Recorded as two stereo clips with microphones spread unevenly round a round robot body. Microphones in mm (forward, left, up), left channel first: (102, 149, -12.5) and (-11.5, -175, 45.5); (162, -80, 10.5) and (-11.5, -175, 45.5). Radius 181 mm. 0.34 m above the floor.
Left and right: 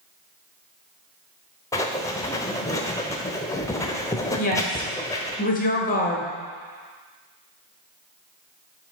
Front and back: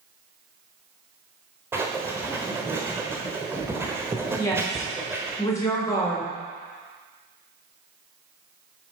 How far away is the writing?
About 0.7 m.